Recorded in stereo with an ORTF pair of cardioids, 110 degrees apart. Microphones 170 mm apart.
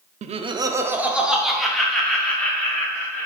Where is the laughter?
45° right, 0.6 m; by 3.3 s 10° left, 2.5 m.